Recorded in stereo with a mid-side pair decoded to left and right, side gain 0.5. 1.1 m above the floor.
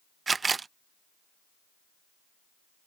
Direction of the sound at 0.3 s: 30° right.